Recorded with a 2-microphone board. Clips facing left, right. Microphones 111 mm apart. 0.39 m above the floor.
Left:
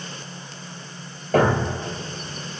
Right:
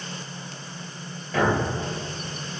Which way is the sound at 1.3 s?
50° left (ahead or behind).